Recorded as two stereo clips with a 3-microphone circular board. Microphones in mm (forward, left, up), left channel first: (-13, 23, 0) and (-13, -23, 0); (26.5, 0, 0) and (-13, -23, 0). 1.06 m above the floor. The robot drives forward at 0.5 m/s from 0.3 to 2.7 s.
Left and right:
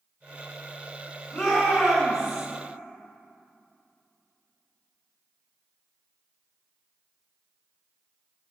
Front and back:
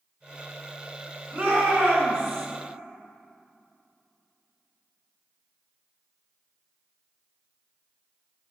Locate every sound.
1.3 s a shout: straight behind, 4.5 m